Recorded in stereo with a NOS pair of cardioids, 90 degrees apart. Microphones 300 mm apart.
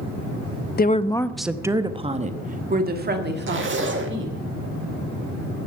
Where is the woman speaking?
30° left, 0.6 m; by 4.5 s 40° right, 2.5 m.